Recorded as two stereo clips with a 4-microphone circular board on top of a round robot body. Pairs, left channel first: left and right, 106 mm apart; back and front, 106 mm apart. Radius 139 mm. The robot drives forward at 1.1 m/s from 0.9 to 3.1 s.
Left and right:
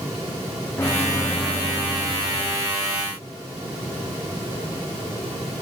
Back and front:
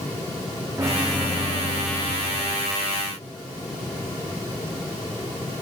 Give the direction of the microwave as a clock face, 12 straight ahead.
11 o'clock.